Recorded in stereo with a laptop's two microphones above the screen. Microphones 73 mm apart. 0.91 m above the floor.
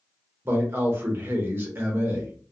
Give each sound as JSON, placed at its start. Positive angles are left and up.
{"t": 0.5, "sound": "a man speaking", "side_deg": -30, "distance_m": 0.7}